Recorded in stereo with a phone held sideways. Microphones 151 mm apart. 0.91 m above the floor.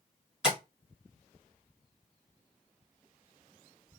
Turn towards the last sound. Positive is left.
turn(degrees=-5)  # may be behind; listen again after turning